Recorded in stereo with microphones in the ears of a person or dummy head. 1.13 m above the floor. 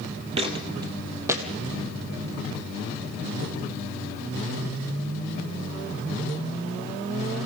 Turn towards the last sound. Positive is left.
turn(degrees=-10)  # may be behind; listen again after turning